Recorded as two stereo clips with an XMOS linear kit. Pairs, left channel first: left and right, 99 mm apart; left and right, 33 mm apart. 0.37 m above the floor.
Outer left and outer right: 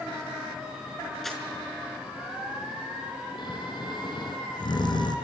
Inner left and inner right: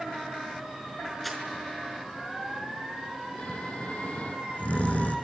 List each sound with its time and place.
1.2 s crumpling: 5° left (ahead or behind), 5.5 m
3.4 s snoring: 50° left (ahead or behind), 3.5 m